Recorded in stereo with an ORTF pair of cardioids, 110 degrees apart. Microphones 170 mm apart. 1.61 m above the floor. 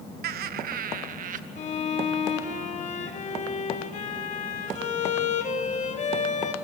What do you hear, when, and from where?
0.2 s laughter: 65° right, 1.2 m; by 1.4 s 50° right, 1.9 m
1.6 s a violin: 45° left, 2 m